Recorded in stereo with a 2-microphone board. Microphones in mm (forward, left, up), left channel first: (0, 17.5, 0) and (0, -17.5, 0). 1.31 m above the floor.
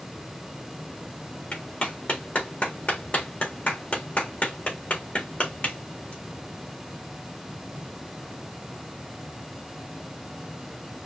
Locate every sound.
1.5 s a clap: 40° left (ahead or behind), 1.5 m